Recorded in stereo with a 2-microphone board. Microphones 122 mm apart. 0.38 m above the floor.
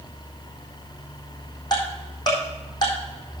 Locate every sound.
1.7 s ticking: 35° left (ahead or behind), 4 m